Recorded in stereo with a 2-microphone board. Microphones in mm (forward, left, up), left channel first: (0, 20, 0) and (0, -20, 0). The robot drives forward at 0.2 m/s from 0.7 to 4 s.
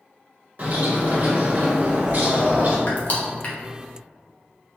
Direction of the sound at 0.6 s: 45° right (ahead or behind).